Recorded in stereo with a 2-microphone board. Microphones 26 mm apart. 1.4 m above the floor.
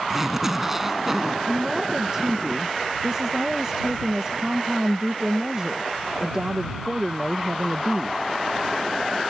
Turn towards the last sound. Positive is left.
turn(degrees=-30)  # may be behind; listen again after turning